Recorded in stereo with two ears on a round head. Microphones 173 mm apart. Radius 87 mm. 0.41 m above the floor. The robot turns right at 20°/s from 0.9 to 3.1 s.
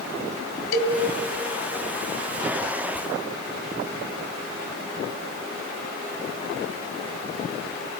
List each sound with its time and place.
0.7 s a cowbell: 50° left (ahead or behind), 3 m